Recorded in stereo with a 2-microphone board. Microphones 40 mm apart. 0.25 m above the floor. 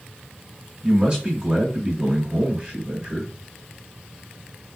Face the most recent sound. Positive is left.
turn(degrees=-25)  # may be behind; listen again after turning